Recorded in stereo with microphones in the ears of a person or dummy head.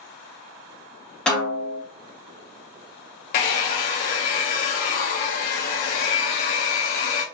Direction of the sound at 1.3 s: 5° left (ahead or behind).